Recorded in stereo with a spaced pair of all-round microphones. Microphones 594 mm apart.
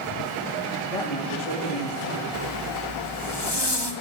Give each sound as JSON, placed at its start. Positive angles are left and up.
{"t": 0.9, "sound": "a man speaking", "side_deg": 60, "distance_m": 2.5}
{"t": 2.3, "sound": "a zipper", "side_deg": 40, "distance_m": 2.5}